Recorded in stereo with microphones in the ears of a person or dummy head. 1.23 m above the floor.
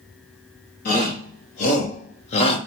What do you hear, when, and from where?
0.8 s a shout: 45° left (ahead or behind), 2 m; by 2.6 s 30° left (ahead or behind), 1.1 m